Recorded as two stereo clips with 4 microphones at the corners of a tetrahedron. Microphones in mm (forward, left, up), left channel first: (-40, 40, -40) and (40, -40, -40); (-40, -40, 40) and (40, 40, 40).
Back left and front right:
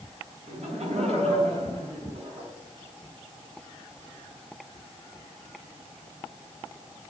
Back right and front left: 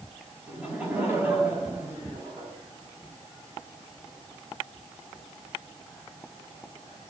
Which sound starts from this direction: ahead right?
Laughter, at 0.5 s.